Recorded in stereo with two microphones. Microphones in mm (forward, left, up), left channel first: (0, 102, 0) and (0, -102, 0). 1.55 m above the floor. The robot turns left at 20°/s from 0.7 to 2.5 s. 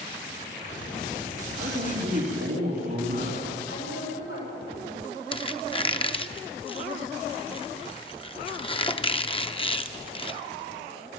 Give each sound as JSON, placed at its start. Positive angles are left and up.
{"t": 1.6, "sound": "a man speaking", "side_deg": -70, "distance_m": 4.5}
{"t": 3.7, "sound": "a woman speaking", "side_deg": 80, "distance_m": 8.5}
{"t": 5.3, "sound": "a squeak", "side_deg": 25, "distance_m": 0.7}